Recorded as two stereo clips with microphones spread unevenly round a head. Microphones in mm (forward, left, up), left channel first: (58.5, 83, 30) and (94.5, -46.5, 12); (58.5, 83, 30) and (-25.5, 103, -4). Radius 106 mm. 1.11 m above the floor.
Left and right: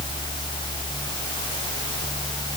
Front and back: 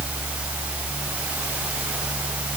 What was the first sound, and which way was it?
Only background noise.